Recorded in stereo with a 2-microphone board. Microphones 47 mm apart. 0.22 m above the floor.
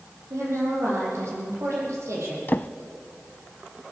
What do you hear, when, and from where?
0.3 s a woman speaking: 80° right, 8.5 m
2.5 s a drawer: 45° left (ahead or behind), 0.6 m